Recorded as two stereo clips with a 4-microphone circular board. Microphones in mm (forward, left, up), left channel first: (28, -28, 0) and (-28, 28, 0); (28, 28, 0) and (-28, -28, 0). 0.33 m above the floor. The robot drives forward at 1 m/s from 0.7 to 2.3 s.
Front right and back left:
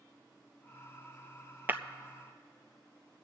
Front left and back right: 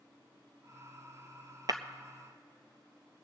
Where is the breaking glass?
165° right, 0.6 m.